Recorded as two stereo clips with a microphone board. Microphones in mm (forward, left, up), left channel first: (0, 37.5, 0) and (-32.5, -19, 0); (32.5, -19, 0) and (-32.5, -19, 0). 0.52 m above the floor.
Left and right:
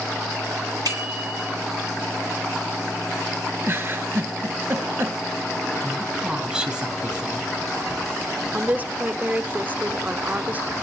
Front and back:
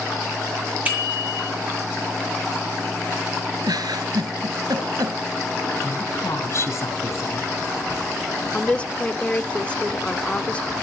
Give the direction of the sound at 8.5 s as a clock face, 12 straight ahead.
2 o'clock.